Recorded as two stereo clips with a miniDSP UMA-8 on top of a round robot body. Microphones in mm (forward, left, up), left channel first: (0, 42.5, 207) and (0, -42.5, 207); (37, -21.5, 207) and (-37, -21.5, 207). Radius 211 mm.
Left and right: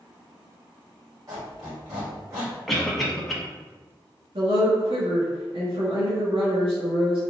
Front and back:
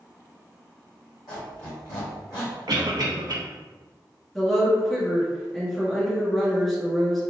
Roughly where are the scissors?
I don't hear scissors.